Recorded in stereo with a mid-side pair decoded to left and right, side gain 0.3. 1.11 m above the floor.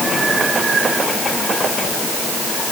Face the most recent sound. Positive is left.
No sound to turn to.